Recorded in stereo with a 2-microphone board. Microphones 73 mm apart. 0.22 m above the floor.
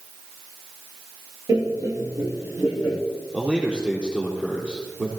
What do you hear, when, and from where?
1.5 s laughter: 55° right (ahead or behind), 3.5 m; by 3.0 s 10° right (ahead or behind), 2.5 m
3.3 s a man speaking: 10° right (ahead or behind), 5 m